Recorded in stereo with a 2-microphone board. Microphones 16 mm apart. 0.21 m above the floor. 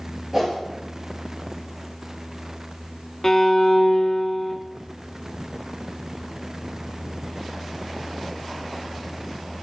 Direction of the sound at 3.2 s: 25° left (ahead or behind).